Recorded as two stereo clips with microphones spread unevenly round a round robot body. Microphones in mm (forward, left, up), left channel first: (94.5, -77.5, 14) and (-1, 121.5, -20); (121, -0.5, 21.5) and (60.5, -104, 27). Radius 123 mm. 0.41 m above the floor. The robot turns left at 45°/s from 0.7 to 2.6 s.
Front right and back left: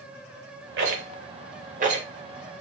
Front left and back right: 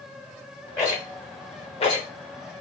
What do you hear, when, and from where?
0.8 s a rattle: 125° left, 0.8 m; by 2.0 s 70° left, 0.8 m